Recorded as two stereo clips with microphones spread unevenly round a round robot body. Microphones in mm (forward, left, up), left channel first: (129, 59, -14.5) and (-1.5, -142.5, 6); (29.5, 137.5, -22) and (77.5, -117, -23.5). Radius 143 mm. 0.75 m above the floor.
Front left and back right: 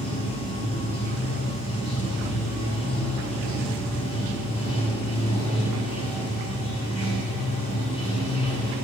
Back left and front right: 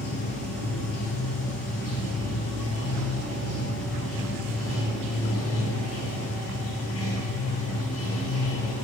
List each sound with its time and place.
0.0 s running water: 95° left, 3 m